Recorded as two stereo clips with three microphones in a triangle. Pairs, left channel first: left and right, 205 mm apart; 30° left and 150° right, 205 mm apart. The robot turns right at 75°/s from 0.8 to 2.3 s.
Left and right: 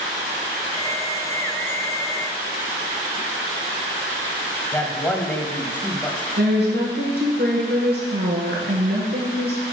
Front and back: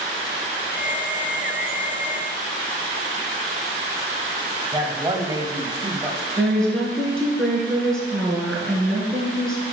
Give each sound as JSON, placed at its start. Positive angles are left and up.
{"t": 4.7, "sound": "a man speaking", "azimuth_deg": 160, "distance_m": 1.0}
{"t": 6.4, "sound": "a woman speaking", "azimuth_deg": -55, "distance_m": 3.0}